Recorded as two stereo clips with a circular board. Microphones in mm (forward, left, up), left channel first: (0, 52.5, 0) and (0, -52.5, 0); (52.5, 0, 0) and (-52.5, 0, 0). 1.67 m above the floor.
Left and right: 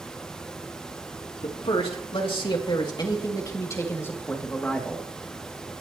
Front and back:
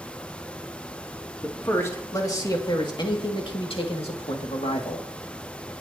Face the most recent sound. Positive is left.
turn(degrees=5)